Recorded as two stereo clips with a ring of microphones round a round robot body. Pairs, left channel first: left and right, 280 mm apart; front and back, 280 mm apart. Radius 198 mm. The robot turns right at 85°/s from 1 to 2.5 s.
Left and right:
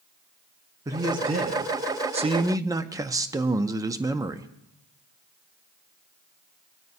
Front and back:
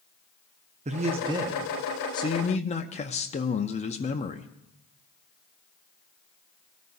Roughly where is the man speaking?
Behind right.